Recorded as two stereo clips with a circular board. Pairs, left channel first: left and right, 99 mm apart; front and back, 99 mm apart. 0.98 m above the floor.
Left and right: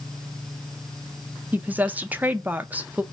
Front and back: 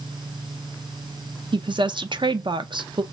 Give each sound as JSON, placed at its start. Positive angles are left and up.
{"t": 1.5, "sound": "a woman speaking", "azimuth_deg": -160, "distance_m": 0.5}